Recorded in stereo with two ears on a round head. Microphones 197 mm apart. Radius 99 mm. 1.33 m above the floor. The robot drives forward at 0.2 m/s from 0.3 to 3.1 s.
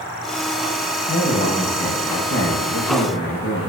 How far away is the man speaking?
About 1.1 m.